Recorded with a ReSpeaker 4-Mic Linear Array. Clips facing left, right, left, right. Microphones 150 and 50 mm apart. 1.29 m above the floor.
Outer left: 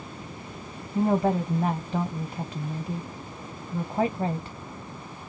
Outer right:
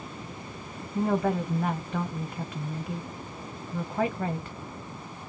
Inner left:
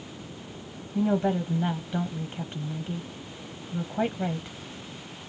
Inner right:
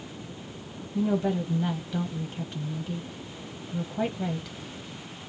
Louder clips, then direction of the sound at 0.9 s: Outer left 3 dB, inner left 1 dB; 20° left (ahead or behind).